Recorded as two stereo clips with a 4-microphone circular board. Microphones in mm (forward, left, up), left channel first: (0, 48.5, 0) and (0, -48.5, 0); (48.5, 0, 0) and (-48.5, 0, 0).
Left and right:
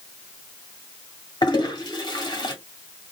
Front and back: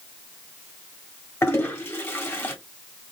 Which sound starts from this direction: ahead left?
A toilet flushing, at 1.4 s.